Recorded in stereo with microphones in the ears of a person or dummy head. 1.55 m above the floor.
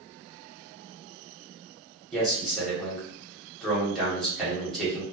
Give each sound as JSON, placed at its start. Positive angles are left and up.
{"t": 2.1, "sound": "a man speaking", "side_deg": 0, "distance_m": 1.1}